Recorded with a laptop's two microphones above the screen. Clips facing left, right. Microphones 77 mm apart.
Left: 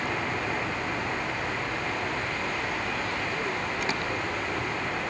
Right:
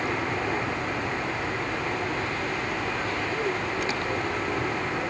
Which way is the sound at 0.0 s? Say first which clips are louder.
Right 2 dB; 20° right (ahead or behind).